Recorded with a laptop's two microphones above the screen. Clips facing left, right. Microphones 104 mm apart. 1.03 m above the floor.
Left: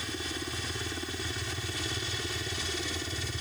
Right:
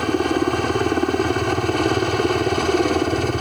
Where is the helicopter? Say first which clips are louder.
Right 19 dB; 65° right (ahead or behind).